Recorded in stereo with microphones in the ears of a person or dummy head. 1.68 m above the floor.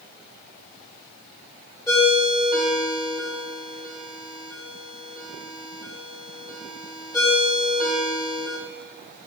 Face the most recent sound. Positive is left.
turn(degrees=15)  # may be behind; listen again after turning